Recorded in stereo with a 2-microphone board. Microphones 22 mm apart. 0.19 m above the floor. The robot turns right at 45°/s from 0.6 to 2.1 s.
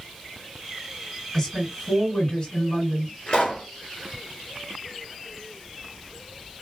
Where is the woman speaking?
10° left, 1.9 m; by 3.1 s 45° left, 1.9 m.